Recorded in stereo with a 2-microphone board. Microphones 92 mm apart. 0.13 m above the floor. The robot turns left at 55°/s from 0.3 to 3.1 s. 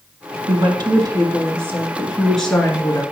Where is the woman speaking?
80° right, 2 m; by 3.0 s 140° left, 2 m.